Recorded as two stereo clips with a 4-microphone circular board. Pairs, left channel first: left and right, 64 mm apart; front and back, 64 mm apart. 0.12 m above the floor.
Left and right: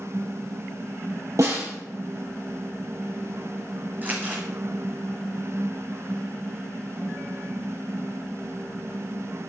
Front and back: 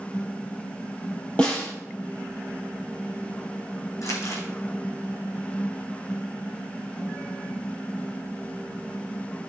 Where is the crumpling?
30° right, 3 m.